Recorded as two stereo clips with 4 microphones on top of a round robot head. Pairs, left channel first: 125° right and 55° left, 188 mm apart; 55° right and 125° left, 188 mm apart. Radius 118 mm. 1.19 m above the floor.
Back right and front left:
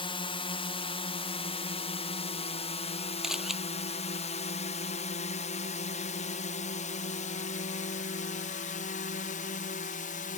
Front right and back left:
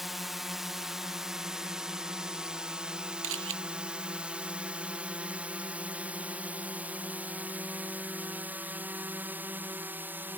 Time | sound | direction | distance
0.0 | a drone | 145° right | ?
3.2 | a camera shutter | 140° left | ?